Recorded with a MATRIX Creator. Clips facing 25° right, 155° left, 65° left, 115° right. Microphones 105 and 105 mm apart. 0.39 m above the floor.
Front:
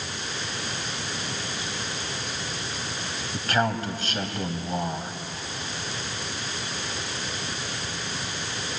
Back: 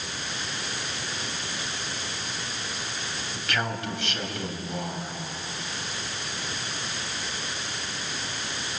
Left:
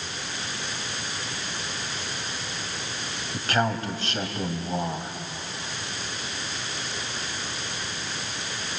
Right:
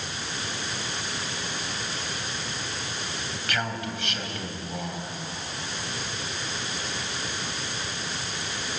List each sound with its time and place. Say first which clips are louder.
3.3 s a man speaking: front 6 dB, left 7 dB; 20° left, 2.5 m